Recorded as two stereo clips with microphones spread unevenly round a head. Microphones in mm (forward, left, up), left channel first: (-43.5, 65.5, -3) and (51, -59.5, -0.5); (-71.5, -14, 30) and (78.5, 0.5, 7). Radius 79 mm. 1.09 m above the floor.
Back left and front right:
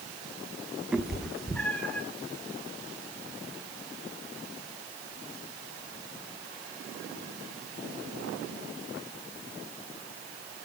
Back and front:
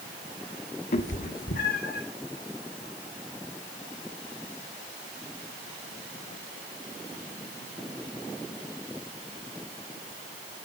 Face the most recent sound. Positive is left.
turn(degrees=-150)